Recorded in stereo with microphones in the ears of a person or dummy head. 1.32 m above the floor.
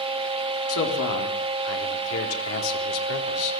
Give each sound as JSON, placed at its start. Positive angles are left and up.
{"t": 0.7, "sound": "a man speaking", "side_deg": 75, "distance_m": 4.0}